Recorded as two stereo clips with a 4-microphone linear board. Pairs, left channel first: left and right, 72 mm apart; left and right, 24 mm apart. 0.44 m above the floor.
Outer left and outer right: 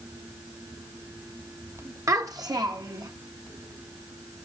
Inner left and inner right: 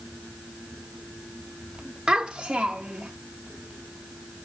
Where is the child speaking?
45° right (ahead or behind), 1.6 m; by 3.1 s 75° right (ahead or behind), 3 m.